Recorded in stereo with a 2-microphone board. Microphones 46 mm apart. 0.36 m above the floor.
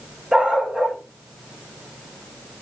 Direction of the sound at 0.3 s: 30° right (ahead or behind).